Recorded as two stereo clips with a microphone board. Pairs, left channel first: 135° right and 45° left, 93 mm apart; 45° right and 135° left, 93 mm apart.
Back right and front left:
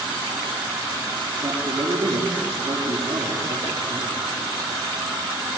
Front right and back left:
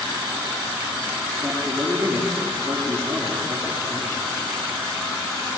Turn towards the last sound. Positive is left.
turn(degrees=75)